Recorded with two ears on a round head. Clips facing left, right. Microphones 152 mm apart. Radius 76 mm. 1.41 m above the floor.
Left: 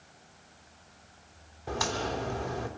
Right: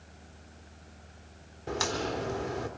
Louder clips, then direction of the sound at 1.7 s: Even; 35° right (ahead or behind).